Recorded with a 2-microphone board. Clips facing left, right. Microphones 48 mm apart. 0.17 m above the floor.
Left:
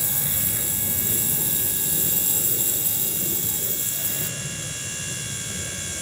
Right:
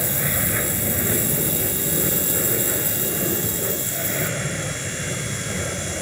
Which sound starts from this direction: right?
An aircraft, at 0.0 s.